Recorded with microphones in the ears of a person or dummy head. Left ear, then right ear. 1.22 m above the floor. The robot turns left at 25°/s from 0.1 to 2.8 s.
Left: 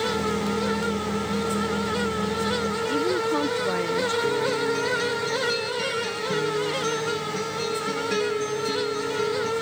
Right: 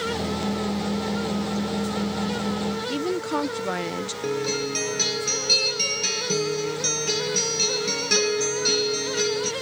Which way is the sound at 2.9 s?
10° right (ahead or behind).